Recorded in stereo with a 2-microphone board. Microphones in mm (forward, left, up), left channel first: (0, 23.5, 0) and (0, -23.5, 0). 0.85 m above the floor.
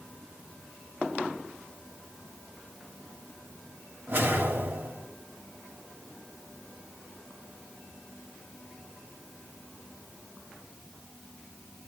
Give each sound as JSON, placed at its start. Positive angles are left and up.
{"t": 4.1, "sound": "a whoosh", "side_deg": -50, "distance_m": 2.5}